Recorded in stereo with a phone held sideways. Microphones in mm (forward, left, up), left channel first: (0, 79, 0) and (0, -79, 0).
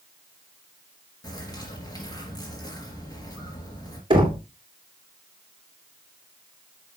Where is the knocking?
35° right (ahead or behind), 3 m.